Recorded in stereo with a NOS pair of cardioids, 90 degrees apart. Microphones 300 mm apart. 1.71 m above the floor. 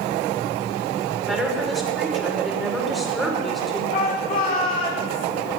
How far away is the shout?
About 6.5 m.